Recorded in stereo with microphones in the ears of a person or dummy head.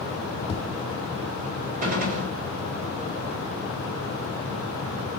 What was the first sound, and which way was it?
Tapping, 30° left (ahead or behind).